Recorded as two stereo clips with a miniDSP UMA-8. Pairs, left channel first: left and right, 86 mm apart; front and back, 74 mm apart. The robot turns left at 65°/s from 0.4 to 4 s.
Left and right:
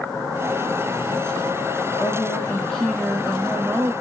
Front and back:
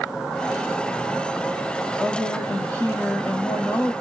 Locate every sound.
2.0 s a woman speaking: 65° left, 1.4 m; by 3.9 s 60° right, 1.4 m